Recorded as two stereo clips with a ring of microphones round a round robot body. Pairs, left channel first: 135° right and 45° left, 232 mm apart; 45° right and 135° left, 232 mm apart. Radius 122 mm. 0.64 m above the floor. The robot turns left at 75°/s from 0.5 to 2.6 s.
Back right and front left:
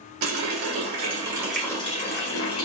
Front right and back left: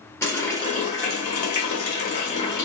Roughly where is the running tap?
Ahead left.